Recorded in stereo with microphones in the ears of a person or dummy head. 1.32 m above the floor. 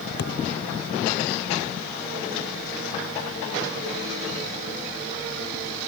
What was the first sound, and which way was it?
A thud, 65° left (ahead or behind).